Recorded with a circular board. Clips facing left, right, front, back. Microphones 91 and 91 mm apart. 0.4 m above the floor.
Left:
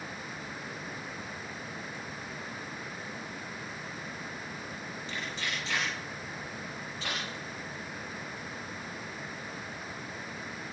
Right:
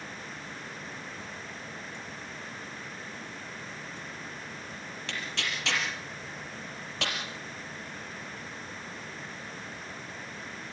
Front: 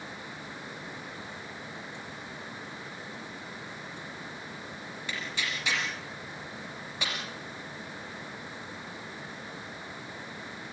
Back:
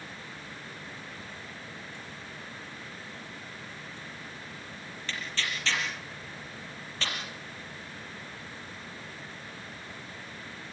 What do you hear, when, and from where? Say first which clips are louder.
5.1 s tearing paper: right 1 dB, even; 80° right, 5.5 m